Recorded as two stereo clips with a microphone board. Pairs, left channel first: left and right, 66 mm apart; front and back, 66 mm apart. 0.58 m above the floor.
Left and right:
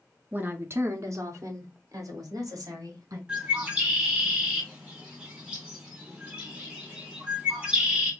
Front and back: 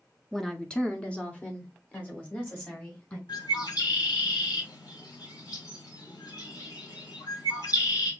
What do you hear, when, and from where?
0.3 s a woman speaking: 80° right, 0.6 m; by 3.2 s 65° right, 2.0 m
3.3 s a bird: 15° right, 2 m